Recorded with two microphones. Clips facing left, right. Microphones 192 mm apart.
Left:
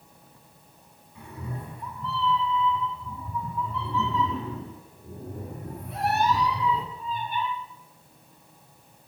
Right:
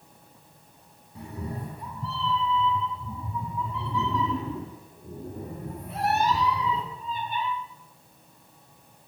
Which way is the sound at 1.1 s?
40° right (ahead or behind).